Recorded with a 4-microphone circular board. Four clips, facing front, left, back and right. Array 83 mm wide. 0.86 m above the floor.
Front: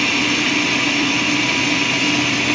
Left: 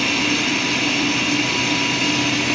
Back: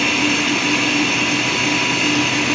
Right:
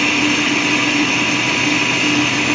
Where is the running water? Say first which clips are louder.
Right 4 dB, back 1 dB; 65° right, 1.4 m.